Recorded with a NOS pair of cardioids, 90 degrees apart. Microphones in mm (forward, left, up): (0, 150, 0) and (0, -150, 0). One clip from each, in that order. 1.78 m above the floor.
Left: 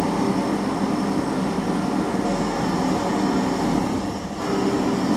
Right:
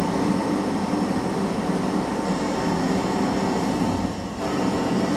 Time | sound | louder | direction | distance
0.0 | an engine running | left 1 dB | 60° left | 1.6 m